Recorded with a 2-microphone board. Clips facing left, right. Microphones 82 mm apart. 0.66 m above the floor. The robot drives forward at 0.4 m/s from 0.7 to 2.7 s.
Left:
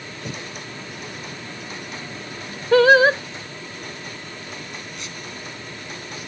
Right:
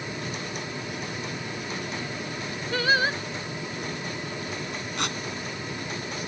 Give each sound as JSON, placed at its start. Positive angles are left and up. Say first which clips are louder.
{"t": 0.2, "sound": "breathing", "louder": "left 1 dB", "side_deg": 70}
{"t": 2.7, "sound": "singing", "louder": "left 12 dB", "side_deg": 70}
{"t": 5.0, "sound": "tearing paper", "louder": "right 6 dB", "side_deg": -60}